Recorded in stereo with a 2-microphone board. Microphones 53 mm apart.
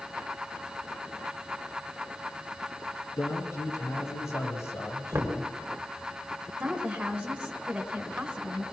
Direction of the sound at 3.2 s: 65° left (ahead or behind).